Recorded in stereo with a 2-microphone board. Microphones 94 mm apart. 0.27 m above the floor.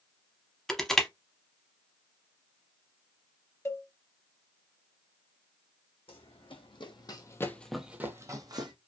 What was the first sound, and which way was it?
Crushing, 5° left (ahead or behind).